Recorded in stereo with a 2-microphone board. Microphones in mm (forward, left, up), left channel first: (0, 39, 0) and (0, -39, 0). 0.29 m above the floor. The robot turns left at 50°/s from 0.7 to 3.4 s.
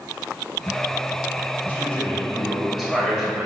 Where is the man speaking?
25° left (ahead or behind), 0.9 m; by 3.5 s 15° right (ahead or behind), 0.9 m.